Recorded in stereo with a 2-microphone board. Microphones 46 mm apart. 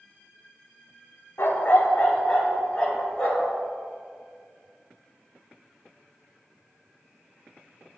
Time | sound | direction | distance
1.4 | a dog barking | 60° left (ahead or behind) | 0.8 m